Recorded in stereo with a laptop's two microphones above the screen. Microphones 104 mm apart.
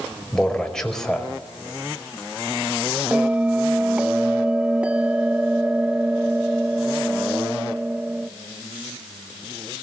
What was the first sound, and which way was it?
A man speaking, 5° left (ahead or behind).